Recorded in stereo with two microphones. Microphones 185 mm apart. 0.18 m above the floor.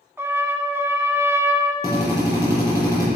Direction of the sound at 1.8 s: 15° right (ahead or behind).